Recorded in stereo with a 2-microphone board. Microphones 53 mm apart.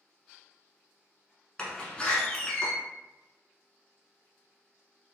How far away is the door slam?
About 1.0 m.